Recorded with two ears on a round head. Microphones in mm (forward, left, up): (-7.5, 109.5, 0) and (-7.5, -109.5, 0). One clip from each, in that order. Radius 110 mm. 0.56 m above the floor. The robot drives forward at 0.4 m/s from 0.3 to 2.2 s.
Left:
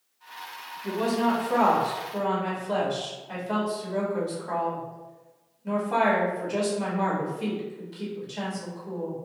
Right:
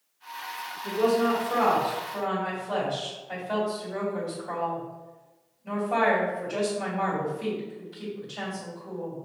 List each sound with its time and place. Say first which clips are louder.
0.8 s a woman speaking: right 2 dB; 40° left (ahead or behind), 1.5 m; by 9.2 s 30° left (ahead or behind), 1.9 m